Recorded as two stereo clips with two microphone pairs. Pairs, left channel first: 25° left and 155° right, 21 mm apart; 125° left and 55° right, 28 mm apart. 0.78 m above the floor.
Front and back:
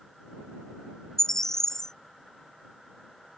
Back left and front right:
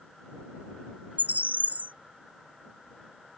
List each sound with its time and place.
1.2 s a bird: 45° right